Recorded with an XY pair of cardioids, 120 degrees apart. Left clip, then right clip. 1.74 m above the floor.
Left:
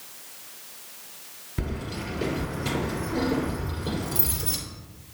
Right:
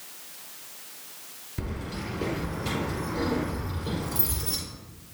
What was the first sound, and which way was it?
Keys jangling, 30° left.